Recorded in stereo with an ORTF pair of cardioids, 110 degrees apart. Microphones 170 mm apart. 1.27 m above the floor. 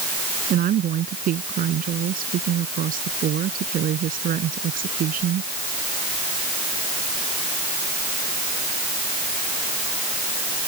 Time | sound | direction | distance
0.5 | a woman speaking | 55° right | ?